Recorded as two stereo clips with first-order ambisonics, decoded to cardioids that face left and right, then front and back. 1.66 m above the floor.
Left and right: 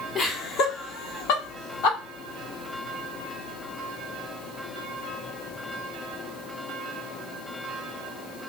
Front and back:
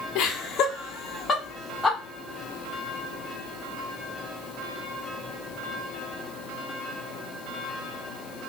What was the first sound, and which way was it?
Laughter, 30° left.